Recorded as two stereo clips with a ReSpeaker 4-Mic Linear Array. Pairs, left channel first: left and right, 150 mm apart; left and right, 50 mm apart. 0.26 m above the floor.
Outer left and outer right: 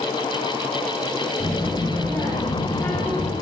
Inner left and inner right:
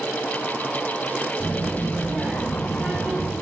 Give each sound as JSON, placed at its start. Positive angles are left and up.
{"t": 1.4, "sound": "a child speaking", "side_deg": 25, "distance_m": 1.3}